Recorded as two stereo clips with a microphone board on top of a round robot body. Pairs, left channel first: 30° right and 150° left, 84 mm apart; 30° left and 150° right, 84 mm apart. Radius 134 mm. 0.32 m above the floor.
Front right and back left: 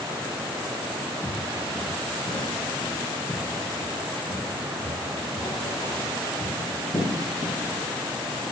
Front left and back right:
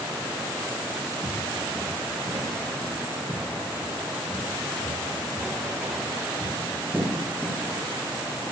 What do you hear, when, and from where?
1.2 s footsteps: 100° right, 4.5 m; by 7.5 s 50° right, 8.5 m